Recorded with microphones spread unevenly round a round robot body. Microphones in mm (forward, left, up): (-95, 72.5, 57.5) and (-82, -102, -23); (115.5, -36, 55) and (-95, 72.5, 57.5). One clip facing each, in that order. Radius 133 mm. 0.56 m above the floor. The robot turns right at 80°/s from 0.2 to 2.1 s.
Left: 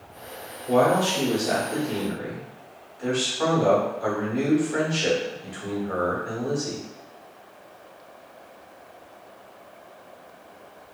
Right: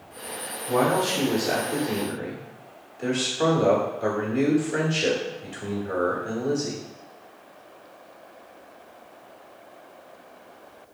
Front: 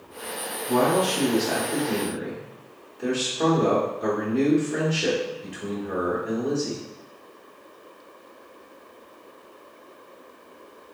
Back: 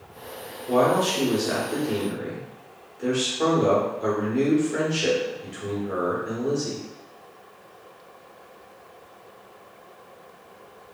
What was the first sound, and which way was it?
A man speaking, 130° left.